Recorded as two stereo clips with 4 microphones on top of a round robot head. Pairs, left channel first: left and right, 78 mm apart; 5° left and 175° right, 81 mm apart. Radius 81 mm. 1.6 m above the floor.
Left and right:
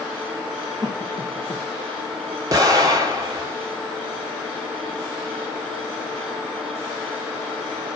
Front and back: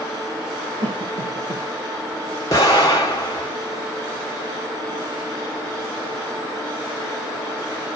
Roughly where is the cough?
Behind right.